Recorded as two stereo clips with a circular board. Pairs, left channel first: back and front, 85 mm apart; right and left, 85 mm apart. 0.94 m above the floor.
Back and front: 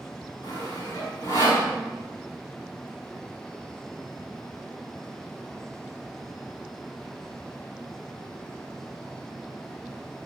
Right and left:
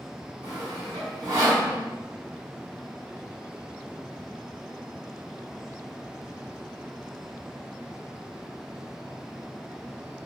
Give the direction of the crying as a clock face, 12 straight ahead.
No crying in this recording.